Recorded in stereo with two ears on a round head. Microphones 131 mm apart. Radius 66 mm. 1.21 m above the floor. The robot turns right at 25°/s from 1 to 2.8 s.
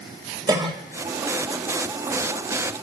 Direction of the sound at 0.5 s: 25° right (ahead or behind).